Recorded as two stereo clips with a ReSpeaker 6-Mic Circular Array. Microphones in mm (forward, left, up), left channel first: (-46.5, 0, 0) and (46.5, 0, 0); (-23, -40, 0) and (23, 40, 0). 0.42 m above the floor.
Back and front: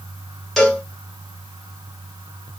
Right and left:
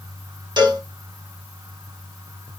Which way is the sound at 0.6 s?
95° left.